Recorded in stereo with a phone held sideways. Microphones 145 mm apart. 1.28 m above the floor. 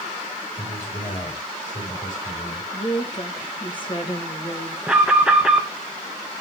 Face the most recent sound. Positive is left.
turn(degrees=-10)  # may be behind; listen again after turning